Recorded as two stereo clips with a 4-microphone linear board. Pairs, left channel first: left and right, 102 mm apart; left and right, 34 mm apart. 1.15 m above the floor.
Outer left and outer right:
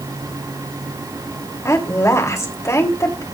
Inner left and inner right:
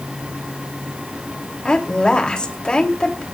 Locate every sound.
1.6 s a woman speaking: 35° left (ahead or behind), 3 m